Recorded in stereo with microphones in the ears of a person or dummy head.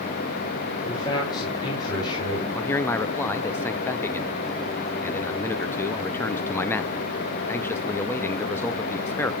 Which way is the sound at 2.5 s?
10° left (ahead or behind).